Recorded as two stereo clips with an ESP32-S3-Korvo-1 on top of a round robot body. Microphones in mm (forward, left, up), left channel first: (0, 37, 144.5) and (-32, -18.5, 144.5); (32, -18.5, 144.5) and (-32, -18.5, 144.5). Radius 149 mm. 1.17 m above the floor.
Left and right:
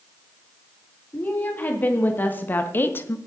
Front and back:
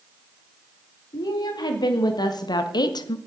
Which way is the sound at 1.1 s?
5° right.